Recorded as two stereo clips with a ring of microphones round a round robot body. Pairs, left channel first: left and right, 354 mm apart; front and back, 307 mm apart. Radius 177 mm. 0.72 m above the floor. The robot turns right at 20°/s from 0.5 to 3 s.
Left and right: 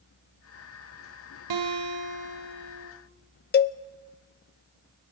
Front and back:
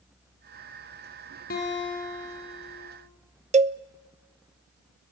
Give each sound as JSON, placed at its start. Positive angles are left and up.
{"t": 1.5, "sound": "a guitar", "azimuth_deg": -65, "distance_m": 3.5}
{"t": 3.5, "sound": "a cowbell", "azimuth_deg": 125, "distance_m": 0.5}